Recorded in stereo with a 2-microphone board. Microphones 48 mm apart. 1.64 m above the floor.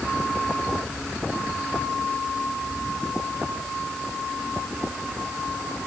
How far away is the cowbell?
I don't hear a cowbell.